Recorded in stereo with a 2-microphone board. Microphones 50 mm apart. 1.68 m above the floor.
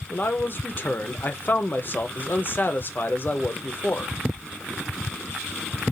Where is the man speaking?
45° left (ahead or behind), 0.6 m.